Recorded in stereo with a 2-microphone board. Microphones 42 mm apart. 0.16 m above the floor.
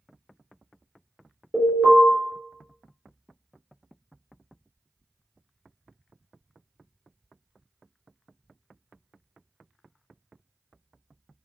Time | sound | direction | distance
1.5 | an alarm | 35° right (ahead or behind) | 3 m